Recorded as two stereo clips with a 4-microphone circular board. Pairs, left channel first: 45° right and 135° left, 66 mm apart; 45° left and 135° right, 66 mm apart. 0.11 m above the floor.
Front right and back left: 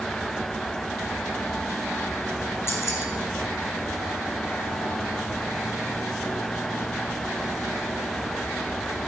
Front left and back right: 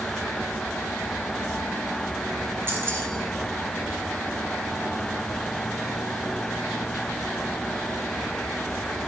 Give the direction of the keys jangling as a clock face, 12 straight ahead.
3 o'clock.